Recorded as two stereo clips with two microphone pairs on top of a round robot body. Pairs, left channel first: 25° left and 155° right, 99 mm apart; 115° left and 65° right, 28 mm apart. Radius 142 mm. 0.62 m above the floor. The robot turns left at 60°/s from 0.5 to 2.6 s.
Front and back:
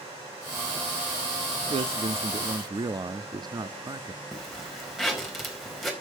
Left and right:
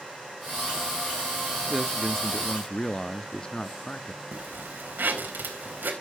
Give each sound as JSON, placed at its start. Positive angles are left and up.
{"t": 1.7, "sound": "a man speaking", "azimuth_deg": -150, "distance_m": 1.0}
{"t": 4.3, "sound": "a zipper", "azimuth_deg": -65, "distance_m": 3.0}